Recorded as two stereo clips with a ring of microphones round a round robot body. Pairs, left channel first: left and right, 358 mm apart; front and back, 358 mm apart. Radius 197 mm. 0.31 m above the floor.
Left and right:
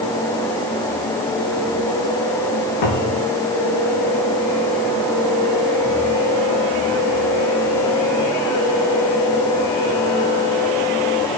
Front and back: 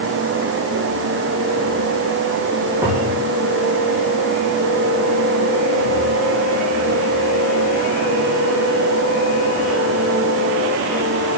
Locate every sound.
2.8 s a cupboard door: 95° left, 8.5 m